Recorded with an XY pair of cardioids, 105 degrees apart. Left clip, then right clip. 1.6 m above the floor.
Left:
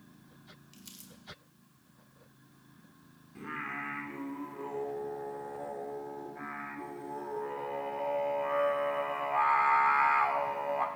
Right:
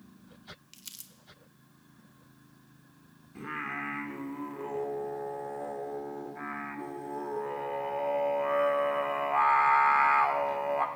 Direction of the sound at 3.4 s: 20° right.